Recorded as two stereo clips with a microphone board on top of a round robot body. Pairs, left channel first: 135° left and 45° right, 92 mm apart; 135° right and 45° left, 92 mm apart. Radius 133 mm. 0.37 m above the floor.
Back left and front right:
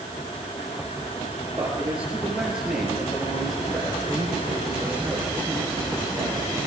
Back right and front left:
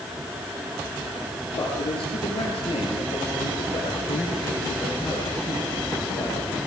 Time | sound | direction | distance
1.6 | a man speaking | 120° right | 10 m